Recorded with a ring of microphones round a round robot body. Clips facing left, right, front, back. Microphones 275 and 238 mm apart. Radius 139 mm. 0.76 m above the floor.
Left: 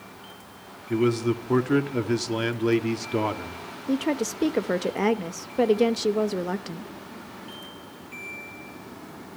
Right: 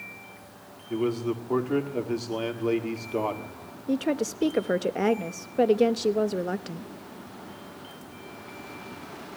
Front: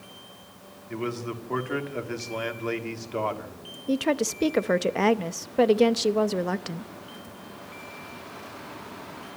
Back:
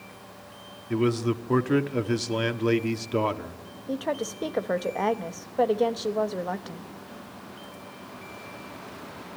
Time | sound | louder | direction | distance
0.9 | a man speaking | left 4 dB, back 7 dB | 145° left | 1.6 m
3.9 | a woman speaking | left 1 dB, front 5 dB | 10° left | 0.8 m